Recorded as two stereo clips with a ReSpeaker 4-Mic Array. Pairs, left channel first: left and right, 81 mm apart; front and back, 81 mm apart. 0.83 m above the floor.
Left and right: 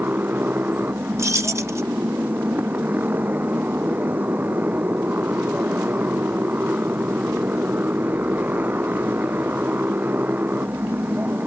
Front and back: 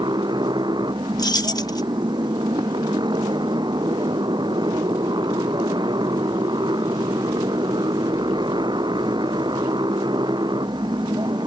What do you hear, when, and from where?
0.0 s a motorcycle: 160° right
1.2 s keys jangling: 40° right